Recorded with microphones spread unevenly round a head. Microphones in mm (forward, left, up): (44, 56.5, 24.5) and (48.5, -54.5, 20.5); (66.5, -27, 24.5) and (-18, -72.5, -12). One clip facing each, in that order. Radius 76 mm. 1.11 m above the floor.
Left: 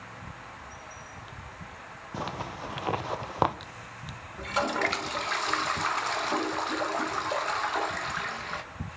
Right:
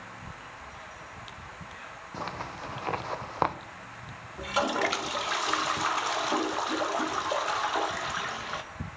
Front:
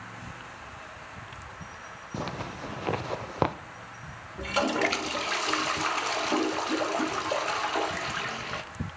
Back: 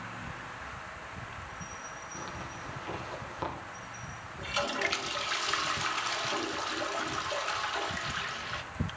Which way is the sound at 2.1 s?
15° left.